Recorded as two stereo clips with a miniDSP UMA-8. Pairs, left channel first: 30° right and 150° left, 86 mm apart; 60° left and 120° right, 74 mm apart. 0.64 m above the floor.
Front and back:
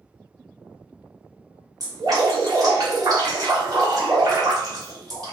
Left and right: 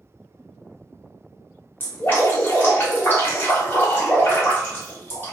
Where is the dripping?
120° left, 1.7 m.